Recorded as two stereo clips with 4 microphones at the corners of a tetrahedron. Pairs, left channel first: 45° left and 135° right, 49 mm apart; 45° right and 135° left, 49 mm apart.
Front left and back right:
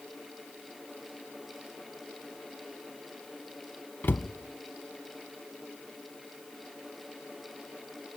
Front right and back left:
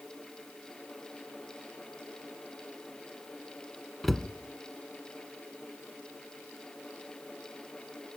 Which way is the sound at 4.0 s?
40° left.